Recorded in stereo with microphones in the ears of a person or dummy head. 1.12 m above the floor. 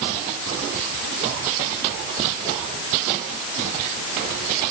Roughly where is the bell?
No bell in this recording.